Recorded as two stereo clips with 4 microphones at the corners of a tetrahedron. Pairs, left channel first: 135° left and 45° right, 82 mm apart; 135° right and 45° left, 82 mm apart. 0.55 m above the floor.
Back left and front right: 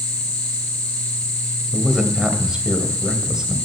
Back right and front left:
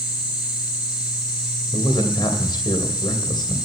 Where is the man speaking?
125° right, 2.5 m.